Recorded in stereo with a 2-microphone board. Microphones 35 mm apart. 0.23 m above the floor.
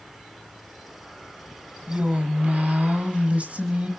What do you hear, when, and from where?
1.9 s a woman speaking: 40° right (ahead or behind), 1.6 m